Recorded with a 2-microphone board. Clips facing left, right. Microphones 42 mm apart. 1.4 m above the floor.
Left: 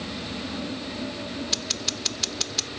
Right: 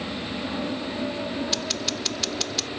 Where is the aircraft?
25° right (ahead or behind); by 2.8 s 45° right (ahead or behind).